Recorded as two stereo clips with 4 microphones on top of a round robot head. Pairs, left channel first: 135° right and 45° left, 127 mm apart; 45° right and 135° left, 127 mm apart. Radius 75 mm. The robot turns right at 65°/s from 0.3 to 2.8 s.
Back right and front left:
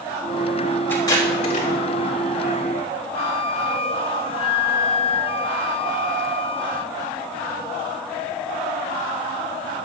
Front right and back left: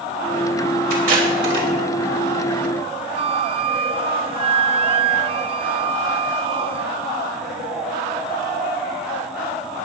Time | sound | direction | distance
0.9 | tape being pulled | 150° left | 4 m
3.1 | a flute | straight behind | 0.7 m